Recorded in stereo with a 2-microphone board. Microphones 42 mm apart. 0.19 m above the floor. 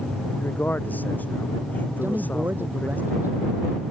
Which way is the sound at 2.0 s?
55° right (ahead or behind).